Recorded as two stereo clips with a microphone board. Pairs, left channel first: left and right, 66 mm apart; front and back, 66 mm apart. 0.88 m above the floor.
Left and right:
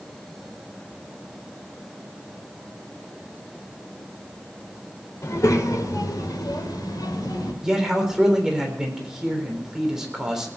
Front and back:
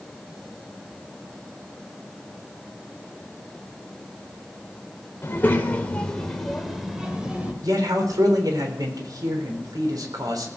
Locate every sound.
5.2 s a child speaking: 50° left, 3 m; by 7.5 s 105° left, 3.5 m
7.6 s a man speaking: 170° right, 3.5 m